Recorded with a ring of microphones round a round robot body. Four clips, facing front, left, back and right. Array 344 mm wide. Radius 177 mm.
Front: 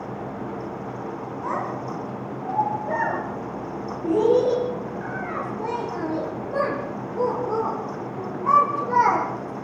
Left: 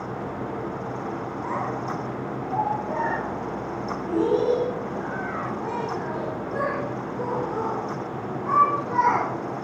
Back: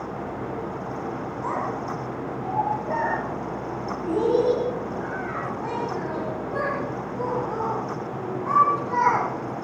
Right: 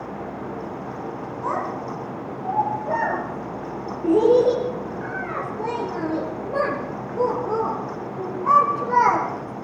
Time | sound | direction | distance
1.4 | a child speaking | 85° right | 5.5 m